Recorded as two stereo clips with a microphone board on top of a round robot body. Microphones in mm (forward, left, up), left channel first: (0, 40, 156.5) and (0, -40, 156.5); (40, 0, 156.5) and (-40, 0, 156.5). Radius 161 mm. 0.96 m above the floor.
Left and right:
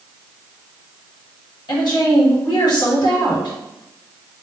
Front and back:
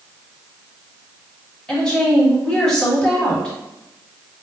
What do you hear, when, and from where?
1.7 s a woman speaking: 80° left, 1.9 m